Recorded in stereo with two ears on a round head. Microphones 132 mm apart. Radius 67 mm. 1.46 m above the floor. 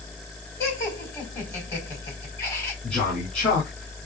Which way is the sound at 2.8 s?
10° left (ahead or behind).